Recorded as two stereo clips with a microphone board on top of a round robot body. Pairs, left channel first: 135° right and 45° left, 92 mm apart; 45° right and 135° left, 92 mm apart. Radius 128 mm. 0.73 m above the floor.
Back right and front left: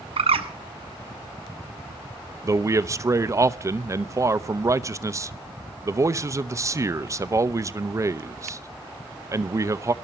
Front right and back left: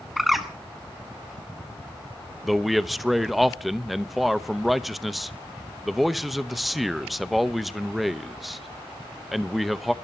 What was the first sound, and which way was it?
A bird, 45° left.